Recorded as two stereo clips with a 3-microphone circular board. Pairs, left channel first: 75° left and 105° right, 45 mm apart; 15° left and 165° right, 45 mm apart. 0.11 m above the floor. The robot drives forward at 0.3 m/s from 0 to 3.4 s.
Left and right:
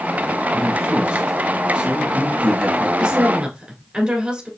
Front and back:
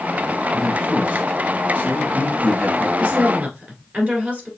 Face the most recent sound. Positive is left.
turn(degrees=-150)